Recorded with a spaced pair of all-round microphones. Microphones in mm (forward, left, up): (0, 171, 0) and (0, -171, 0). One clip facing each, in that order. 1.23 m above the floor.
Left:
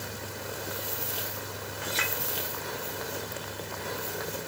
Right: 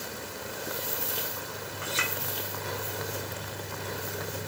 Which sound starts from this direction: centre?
A clink, at 1.8 s.